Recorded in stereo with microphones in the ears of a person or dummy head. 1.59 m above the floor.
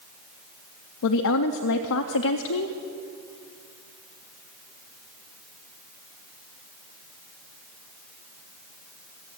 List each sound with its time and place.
1.0 s a woman speaking: 70° left (ahead or behind), 0.5 m